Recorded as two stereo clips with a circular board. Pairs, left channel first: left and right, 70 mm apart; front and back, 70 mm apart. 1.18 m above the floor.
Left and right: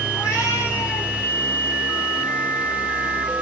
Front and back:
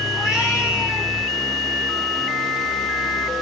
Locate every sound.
0.1 s a cat meowing: 105° left, 1.8 m; by 1.1 s 125° left, 1.3 m